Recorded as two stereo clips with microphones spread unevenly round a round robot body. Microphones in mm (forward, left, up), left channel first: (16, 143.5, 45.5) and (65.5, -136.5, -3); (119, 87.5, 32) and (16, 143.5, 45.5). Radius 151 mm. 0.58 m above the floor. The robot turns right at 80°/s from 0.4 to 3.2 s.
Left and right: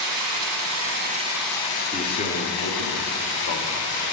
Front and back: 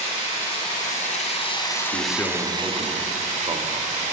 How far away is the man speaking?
About 0.9 m.